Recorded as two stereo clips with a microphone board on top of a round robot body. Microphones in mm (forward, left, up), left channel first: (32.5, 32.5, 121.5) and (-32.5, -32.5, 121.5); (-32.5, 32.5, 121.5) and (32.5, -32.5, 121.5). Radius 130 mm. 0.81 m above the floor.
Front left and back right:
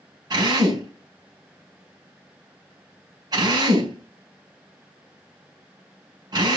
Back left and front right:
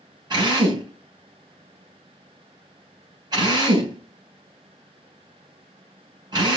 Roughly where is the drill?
Right.